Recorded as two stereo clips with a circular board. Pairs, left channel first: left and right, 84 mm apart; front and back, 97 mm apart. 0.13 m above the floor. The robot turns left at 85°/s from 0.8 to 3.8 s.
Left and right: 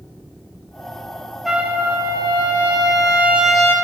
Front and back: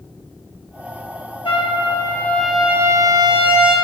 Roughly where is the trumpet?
Ahead.